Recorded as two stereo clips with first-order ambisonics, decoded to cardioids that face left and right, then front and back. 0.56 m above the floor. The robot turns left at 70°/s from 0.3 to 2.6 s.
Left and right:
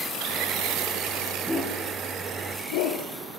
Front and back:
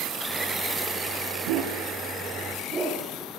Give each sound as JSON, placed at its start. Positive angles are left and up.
{"t": 1.5, "sound": "a dog barking", "azimuth_deg": -175, "distance_m": 5.0}